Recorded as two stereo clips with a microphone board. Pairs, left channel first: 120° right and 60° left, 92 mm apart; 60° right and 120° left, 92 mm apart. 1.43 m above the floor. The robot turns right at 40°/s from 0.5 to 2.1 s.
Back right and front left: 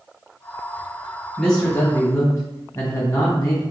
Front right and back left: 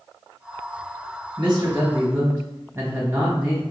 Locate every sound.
1.4 s a man speaking: 155° left, 1.3 m; by 3.6 s 175° right, 1.3 m